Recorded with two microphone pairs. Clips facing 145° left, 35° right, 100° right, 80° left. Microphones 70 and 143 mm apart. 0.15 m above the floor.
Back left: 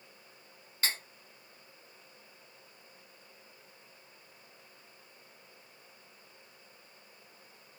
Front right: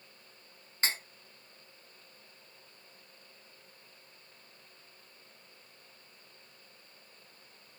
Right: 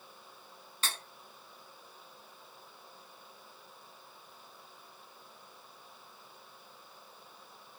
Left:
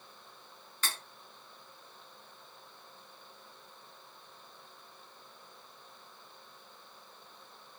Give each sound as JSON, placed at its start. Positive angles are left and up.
{"t": 0.8, "sound": "cutlery clinking", "azimuth_deg": -65, "distance_m": 0.7}